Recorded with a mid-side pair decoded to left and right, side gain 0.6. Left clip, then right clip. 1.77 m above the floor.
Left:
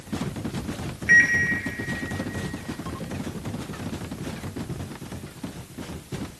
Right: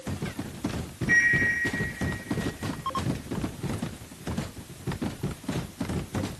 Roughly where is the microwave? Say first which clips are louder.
Left 5 dB; ahead left.